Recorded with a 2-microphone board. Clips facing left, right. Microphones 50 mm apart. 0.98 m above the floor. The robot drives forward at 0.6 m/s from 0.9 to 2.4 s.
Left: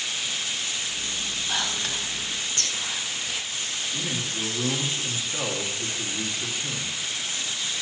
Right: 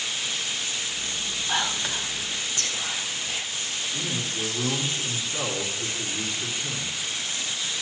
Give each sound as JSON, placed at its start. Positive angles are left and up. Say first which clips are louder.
{"t": 1.5, "sound": "whispering", "louder": "right 3 dB", "side_deg": -15, "distance_m": 0.7}
{"t": 3.9, "sound": "a man speaking", "louder": "even", "side_deg": 25, "distance_m": 1.9}